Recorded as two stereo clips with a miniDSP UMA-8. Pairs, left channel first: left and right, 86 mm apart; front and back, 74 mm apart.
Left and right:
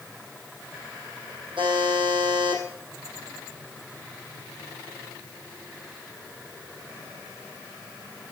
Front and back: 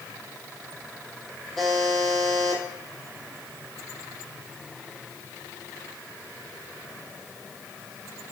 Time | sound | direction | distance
1.6 | a buzzer | 85° right | 4 m